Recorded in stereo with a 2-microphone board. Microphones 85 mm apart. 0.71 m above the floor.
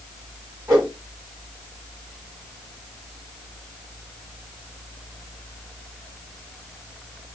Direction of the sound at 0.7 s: 30° right (ahead or behind).